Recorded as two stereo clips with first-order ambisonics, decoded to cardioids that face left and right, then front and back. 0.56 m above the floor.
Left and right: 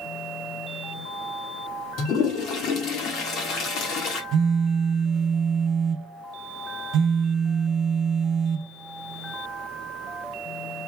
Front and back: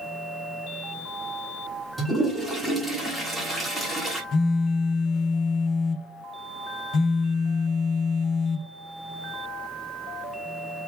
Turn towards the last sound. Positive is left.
turn(degrees=-45)